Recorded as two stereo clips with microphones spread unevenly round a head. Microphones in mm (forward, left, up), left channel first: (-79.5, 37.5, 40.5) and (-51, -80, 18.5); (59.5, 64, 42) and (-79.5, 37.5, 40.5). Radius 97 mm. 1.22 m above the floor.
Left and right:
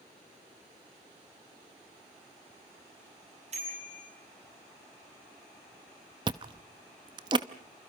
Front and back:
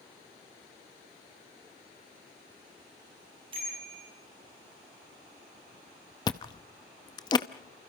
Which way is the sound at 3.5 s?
105° right.